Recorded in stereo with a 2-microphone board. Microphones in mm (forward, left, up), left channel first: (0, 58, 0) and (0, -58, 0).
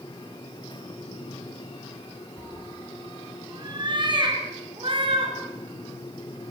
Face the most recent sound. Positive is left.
turn(degrees=-50)  # may be behind; listen again after turning